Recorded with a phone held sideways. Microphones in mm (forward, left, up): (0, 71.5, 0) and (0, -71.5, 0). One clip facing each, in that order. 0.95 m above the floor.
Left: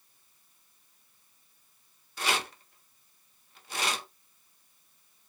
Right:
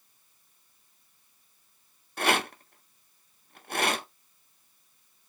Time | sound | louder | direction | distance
2.2 | a rattle | right 6 dB | 55° right (ahead or behind) | 0.5 m